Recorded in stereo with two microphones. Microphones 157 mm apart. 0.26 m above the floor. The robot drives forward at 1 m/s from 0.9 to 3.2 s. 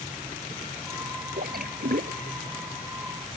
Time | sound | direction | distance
1.4 | a splash | 75° right (ahead or behind) | ?